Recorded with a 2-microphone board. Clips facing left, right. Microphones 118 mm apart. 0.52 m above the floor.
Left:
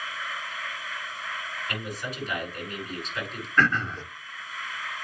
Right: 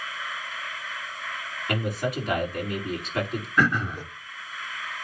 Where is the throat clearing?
10° right (ahead or behind), 0.8 m.